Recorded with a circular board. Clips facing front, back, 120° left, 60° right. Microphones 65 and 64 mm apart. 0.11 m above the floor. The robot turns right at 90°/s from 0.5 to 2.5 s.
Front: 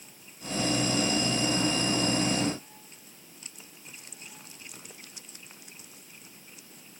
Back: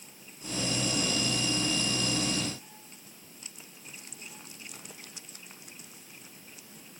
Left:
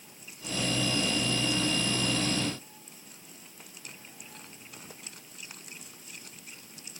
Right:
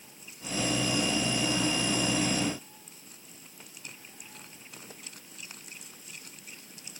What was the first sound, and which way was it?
Only background noise.